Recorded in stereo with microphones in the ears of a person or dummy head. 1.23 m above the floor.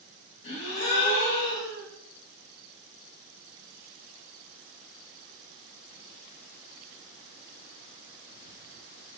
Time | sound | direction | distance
0.4 | a gasp | 60° left (ahead or behind) | 1.3 m